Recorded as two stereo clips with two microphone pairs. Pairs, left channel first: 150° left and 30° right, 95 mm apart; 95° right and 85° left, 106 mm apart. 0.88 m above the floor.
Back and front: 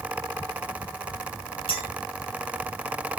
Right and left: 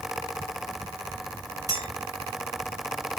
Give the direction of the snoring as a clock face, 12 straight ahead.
I don't hear snoring.